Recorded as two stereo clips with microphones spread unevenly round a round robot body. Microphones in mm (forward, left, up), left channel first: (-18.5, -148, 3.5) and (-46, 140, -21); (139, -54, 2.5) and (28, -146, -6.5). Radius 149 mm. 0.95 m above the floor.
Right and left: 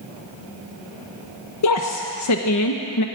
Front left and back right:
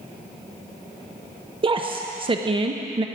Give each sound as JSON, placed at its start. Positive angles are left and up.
{"t": 1.6, "sound": "a woman speaking", "azimuth_deg": -100, "distance_m": 0.8}